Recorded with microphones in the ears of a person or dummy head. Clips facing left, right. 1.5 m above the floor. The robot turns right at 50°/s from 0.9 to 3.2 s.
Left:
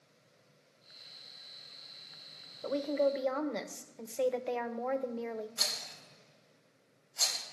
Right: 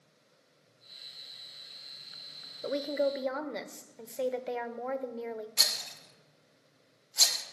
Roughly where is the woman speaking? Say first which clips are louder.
Even; right.